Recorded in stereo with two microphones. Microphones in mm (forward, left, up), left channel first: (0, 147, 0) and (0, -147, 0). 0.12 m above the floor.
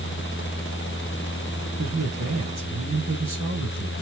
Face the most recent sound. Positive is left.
turn(degrees=-65)  # may be behind; listen again after turning